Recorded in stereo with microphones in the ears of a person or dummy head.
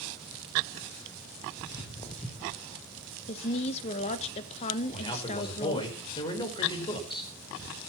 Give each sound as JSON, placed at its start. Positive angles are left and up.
{"t": 1.6, "sound": "footsteps", "side_deg": 30, "distance_m": 3.5}
{"t": 3.3, "sound": "a woman speaking", "side_deg": 35, "distance_m": 1.5}
{"t": 4.9, "sound": "a man speaking", "side_deg": 30, "distance_m": 5.0}